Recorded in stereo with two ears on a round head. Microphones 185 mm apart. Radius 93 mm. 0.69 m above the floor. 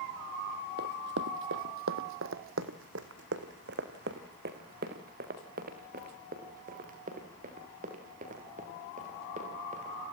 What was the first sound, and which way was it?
Running footsteps, 50° right (ahead or behind).